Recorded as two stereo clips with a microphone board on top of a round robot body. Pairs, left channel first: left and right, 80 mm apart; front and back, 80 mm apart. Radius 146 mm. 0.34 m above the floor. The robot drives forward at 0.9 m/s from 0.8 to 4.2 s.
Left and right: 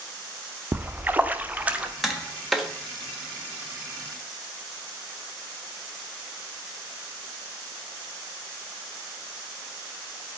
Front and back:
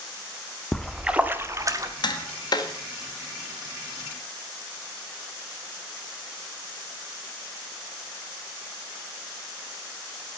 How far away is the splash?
About 1.0 m.